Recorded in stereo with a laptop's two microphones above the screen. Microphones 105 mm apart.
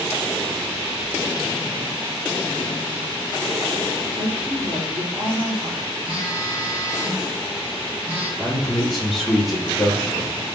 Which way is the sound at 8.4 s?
Centre (ahead or behind).